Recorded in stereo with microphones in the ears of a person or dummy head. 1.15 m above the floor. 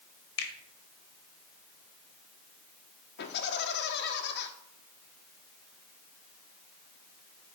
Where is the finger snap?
70° left (ahead or behind), 1.6 m.